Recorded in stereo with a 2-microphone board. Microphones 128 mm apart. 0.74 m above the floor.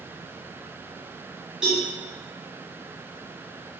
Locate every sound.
1.6 s a cowbell: 5° right (ahead or behind), 1.3 m